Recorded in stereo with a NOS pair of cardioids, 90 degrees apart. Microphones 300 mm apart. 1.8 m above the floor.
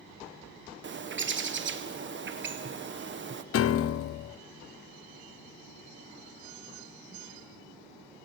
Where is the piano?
50° left, 0.6 m.